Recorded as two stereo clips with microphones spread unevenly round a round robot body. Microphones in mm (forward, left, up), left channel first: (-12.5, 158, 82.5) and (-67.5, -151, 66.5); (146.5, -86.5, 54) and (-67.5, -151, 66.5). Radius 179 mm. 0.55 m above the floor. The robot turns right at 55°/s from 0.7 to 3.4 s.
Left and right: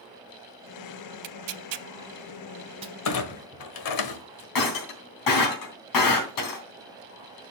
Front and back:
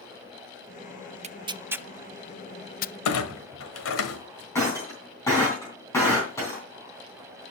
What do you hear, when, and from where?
1.2 s tearing paper: 115° right, 0.5 m; by 3.0 s 20° right, 0.5 m
3.0 s a clunk: 35° left, 1.4 m; by 4.5 s 55° left, 1.4 m
4.5 s breaking glass: 100° left, 3.5 m